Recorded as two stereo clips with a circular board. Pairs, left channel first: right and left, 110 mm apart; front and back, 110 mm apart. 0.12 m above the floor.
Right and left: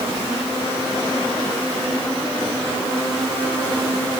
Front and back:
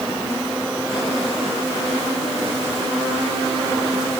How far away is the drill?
No drill in this recording.